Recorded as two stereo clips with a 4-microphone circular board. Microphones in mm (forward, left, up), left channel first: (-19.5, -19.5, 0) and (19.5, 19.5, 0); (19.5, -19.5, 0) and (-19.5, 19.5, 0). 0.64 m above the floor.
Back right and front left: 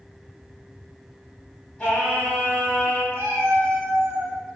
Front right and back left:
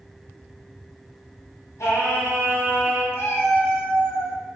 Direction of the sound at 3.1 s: Straight ahead.